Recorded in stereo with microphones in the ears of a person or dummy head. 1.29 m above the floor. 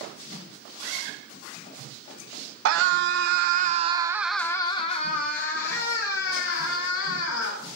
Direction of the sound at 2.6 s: 70° right (ahead or behind).